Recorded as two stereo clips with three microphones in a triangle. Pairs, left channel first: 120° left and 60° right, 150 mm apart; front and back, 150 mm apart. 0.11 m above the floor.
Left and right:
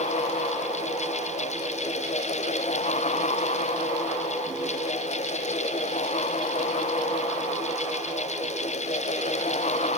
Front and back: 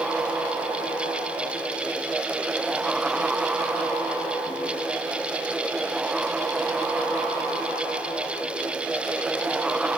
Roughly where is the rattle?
I don't hear a rattle.